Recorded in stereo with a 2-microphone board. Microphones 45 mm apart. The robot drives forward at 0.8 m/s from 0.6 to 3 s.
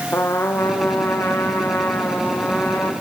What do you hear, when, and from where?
0.1 s a trumpet: 75° left (ahead or behind), 3.5 m; by 2.9 s 50° left (ahead or behind), 4.5 m